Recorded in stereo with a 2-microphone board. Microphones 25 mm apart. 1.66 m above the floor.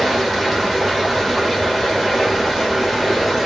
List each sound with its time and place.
0.0 s running water: 5° right (ahead or behind), 1.6 m